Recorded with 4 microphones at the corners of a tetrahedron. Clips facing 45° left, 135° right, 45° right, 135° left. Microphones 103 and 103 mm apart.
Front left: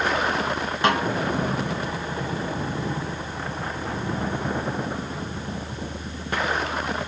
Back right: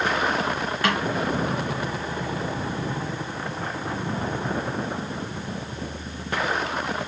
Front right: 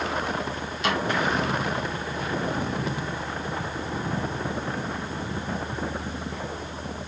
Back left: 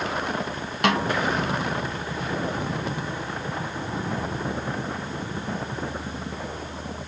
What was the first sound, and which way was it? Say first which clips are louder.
A snare drum: front left 4 dB, back left 4 dB; 110° left.